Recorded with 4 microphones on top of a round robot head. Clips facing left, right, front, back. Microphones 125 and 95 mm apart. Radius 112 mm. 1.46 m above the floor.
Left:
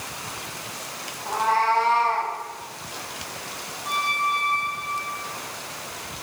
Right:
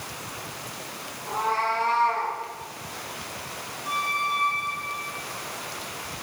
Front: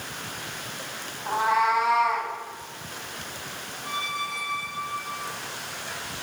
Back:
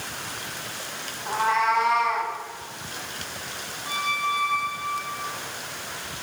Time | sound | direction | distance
1.3 | a cat meowing | 70° left | 3.5 m
3.8 | a squeak | 20° left | 6.5 m